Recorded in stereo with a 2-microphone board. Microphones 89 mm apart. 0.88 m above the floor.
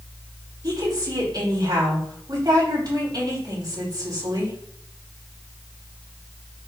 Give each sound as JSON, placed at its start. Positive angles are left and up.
{"t": 0.6, "sound": "a woman speaking", "side_deg": -45, "distance_m": 4.0}